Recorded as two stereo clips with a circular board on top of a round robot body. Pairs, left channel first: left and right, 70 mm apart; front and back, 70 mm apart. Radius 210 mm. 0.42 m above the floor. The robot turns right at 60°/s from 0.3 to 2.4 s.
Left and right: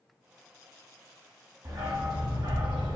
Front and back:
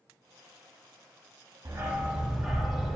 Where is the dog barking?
135° right, 1.4 m; by 3.0 s 90° right, 1.4 m.